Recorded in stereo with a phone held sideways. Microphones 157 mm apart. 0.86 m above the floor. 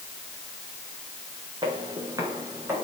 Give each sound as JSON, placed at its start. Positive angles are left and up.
{"t": 1.6, "sound": "footsteps", "side_deg": -30, "distance_m": 5.0}